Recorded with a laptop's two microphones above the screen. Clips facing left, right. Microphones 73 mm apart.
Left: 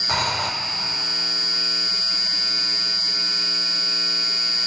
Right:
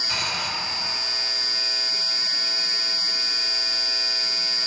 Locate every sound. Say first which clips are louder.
0.1 s breathing: left 6 dB; 50° left (ahead or behind), 1.0 m